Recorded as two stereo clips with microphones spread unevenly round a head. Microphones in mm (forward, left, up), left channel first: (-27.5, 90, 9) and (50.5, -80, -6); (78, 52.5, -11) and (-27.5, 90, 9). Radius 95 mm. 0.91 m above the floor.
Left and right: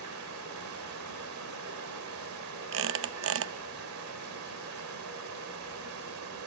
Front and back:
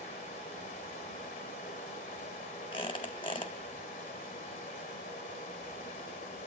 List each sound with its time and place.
0.0 s running water: 55° right, 1.9 m
2.7 s a squeak: 85° right, 0.6 m